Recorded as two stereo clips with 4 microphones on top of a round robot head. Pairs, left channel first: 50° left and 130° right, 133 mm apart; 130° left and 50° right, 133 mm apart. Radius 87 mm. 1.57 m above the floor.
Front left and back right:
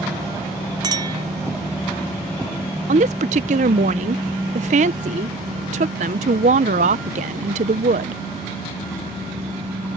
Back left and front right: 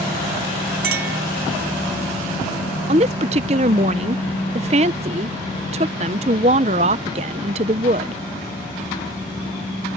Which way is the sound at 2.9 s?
95° right.